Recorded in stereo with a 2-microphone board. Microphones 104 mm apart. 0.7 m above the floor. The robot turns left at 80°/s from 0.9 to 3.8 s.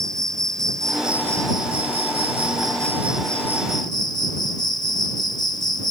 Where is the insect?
5° left; by 5.9 s 135° left.